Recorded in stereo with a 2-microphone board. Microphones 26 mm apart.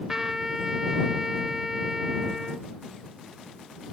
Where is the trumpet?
20° right (ahead or behind).